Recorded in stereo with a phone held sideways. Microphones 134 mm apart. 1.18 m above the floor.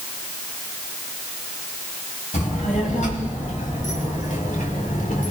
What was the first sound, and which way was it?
A child speaking, 65° left (ahead or behind).